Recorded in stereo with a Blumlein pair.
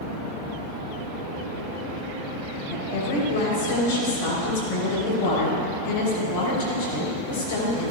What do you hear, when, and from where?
2.7 s a woman speaking: 55° left, 4 m